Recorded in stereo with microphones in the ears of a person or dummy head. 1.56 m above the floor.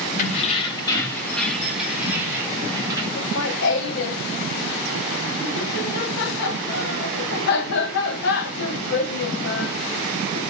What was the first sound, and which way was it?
Keys jangling, 45° left (ahead or behind).